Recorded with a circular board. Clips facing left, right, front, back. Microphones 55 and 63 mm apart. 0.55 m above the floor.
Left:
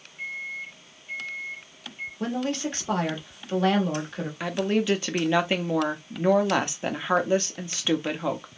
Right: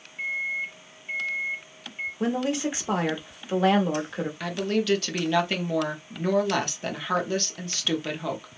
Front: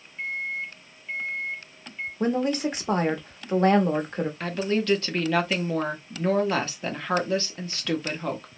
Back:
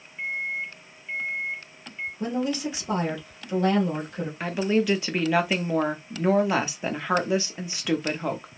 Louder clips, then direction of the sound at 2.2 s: Right 2 dB, front 3 dB; 15° right.